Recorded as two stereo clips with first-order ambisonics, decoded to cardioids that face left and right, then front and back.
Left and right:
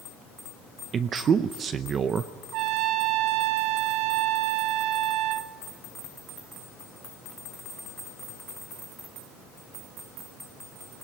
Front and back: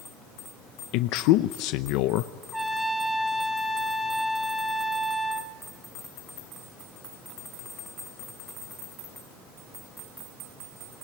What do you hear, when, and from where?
0.9 s a man speaking: 25° right, 0.6 m
2.5 s a trumpet: 90° right, 1.0 m